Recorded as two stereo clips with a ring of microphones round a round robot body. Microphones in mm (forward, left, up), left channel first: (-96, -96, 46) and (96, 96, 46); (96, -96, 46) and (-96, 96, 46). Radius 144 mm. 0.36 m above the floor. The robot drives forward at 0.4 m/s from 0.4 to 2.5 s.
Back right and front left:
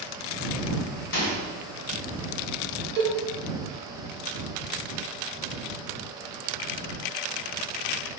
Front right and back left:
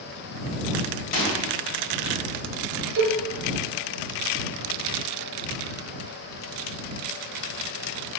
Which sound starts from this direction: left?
A cowbell, at 3.0 s.